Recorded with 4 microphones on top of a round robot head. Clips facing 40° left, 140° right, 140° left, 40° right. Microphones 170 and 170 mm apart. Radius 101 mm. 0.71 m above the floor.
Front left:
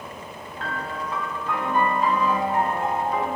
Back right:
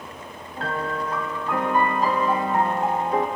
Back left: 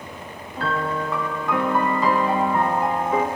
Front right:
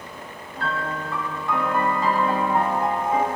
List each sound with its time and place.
0.6 s a piano: 165° left, 0.8 m